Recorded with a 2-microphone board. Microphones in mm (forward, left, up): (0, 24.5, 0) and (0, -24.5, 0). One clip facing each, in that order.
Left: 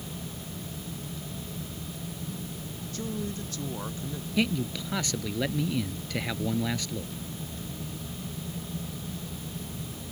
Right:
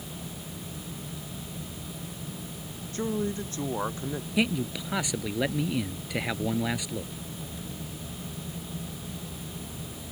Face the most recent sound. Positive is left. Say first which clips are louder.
# even
turn(degrees=-10)  # may be behind; listen again after turning